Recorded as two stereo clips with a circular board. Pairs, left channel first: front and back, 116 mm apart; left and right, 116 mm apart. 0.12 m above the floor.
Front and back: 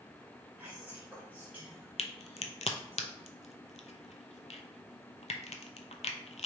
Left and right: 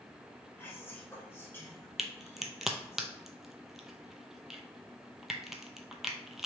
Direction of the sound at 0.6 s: 130° left.